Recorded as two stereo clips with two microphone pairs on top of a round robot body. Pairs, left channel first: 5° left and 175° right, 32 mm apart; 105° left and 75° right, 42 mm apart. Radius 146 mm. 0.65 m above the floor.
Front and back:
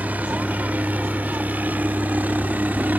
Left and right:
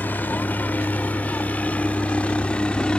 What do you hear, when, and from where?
0.0 s a helicopter: 150° left; by 3.0 s 170° left